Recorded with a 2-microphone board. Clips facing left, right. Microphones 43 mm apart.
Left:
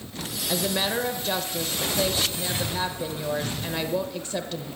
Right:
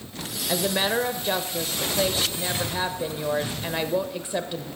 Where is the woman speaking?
15° right (ahead or behind), 0.9 m.